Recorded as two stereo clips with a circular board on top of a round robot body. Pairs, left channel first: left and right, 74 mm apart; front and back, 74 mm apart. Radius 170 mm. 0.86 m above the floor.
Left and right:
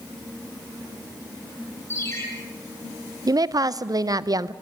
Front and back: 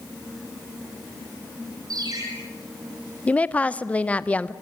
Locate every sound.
1.9 s a ringtone: 145° left, 7 m
3.3 s a woman speaking: 70° right, 0.7 m